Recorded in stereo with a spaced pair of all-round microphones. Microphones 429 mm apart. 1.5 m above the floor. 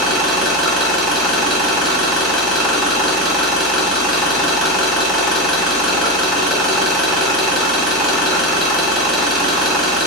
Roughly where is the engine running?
Centre.